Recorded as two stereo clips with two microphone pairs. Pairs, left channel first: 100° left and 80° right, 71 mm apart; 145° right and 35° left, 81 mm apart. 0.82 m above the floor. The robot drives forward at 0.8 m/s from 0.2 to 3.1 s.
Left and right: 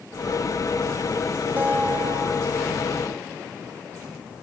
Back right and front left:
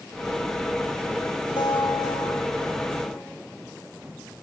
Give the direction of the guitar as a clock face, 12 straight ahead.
5 o'clock.